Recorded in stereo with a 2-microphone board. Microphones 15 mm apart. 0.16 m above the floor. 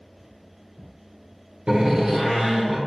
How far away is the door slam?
About 1.4 m.